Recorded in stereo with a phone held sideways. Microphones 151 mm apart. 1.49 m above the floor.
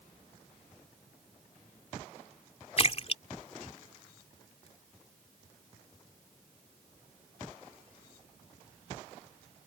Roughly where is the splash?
Left.